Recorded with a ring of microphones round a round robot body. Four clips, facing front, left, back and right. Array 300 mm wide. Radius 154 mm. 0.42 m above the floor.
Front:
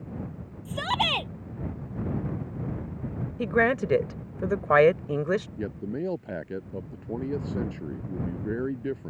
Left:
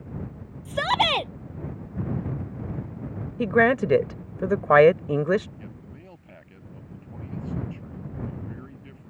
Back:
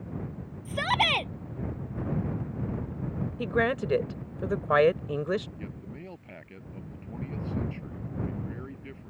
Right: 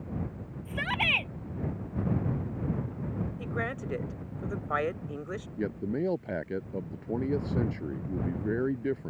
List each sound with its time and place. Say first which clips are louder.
0.7 s a shout: left 9 dB, back 1 dB; 95° left
3.4 s a woman speaking: left 20 dB, front 4 dB; 80° left
5.6 s a man speaking: right 13 dB, front 10 dB; 50° right